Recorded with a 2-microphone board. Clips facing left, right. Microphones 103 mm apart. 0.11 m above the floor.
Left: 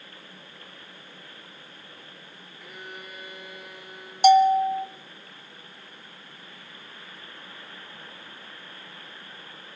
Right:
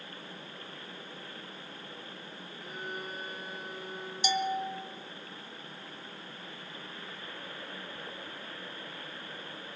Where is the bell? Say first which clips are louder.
Left 15 dB; 60° left (ahead or behind), 1.1 m.